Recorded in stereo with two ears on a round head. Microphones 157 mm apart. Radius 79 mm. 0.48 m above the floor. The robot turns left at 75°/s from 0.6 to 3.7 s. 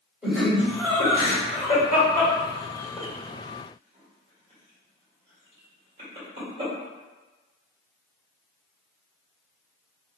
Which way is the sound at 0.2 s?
5° right (ahead or behind).